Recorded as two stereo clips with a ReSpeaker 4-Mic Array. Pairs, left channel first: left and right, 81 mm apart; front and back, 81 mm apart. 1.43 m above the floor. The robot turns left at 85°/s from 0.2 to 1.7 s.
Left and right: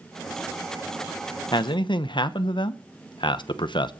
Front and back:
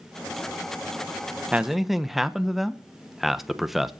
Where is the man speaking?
110° left, 0.9 m; by 3.9 s 95° left, 0.9 m.